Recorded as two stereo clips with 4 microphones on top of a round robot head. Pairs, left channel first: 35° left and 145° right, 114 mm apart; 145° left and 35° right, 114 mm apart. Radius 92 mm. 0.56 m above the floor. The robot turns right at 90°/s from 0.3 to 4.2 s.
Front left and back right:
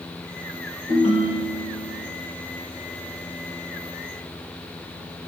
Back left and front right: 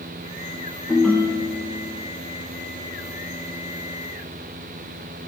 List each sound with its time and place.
0.9 s a ringtone: 45° left, 2 m; by 2.0 s 150° left, 2 m